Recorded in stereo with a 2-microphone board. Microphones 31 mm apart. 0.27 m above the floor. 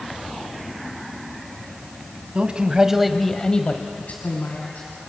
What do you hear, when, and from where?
2.4 s a man speaking: 35° right (ahead or behind), 1.8 m; by 4.9 s 65° left (ahead or behind), 3 m